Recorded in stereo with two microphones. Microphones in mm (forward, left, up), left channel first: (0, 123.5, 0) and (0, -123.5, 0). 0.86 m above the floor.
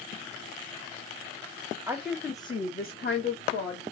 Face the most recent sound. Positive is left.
turn(degrees=55)  # may be behind; listen again after turning